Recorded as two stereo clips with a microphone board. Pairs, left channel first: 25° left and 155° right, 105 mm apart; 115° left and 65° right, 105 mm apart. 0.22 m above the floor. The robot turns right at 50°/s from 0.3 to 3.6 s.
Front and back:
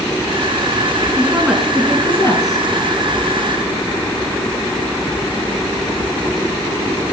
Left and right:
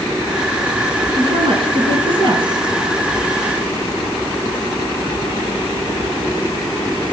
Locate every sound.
1.2 s a woman speaking: 95° right, 3 m; by 2.6 s 20° right, 3 m